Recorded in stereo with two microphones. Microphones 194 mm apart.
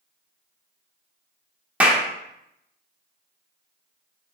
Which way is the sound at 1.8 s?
5° right (ahead or behind).